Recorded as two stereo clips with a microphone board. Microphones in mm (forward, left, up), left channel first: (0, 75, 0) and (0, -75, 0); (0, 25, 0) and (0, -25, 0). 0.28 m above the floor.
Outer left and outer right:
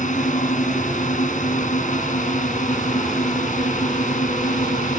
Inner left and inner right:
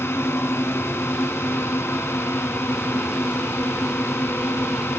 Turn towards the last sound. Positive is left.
turn(degrees=60)  # may be behind; listen again after turning